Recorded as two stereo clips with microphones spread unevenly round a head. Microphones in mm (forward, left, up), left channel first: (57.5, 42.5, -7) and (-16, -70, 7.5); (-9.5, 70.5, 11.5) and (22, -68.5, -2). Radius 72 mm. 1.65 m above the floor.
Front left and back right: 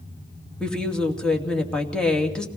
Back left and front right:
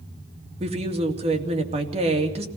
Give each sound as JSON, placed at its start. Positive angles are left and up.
{"t": 0.6, "sound": "a woman speaking", "azimuth_deg": -30, "distance_m": 2.5}